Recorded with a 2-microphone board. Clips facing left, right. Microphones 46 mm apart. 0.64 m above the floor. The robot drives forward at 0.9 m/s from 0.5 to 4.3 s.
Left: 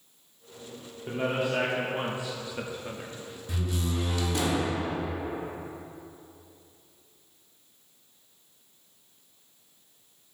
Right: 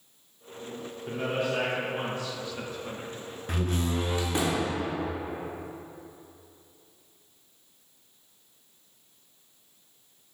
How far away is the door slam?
About 0.6 m.